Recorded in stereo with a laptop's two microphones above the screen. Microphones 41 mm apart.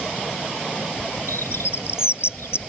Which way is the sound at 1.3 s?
90° left.